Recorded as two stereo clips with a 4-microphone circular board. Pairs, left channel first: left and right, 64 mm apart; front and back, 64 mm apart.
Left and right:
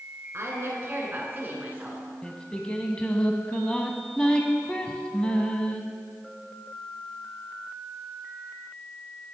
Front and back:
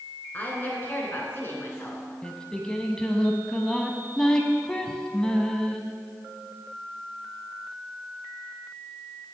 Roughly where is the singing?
Ahead left.